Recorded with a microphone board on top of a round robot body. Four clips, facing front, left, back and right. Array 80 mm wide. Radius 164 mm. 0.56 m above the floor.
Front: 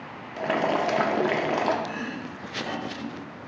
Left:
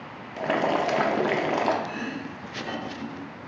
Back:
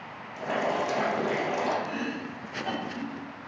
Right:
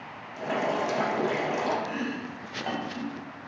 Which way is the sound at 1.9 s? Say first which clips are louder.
Even, even; 100° right.